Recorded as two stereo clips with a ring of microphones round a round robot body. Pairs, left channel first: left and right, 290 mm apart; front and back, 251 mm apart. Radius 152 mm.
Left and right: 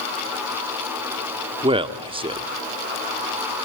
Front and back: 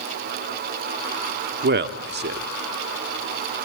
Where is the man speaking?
155° right, 1.2 m.